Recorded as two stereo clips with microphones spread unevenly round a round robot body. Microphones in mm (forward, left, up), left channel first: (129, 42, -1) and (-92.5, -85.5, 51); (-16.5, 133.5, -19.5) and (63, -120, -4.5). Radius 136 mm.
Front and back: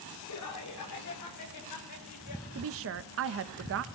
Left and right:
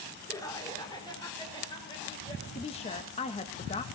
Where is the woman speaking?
170° left, 0.6 m.